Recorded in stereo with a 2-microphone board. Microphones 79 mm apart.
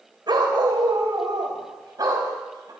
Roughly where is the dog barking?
Right.